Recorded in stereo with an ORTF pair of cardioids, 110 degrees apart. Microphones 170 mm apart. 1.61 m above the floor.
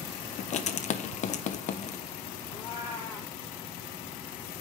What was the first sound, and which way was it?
Writing, 45° left.